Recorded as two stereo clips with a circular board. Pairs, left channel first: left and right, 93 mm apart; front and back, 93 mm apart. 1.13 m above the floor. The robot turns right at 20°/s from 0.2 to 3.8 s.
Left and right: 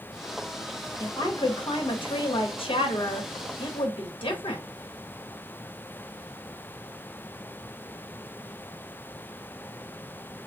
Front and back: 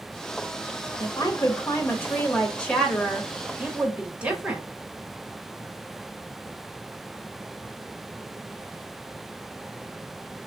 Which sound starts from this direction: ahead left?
A woman speaking, at 1.0 s.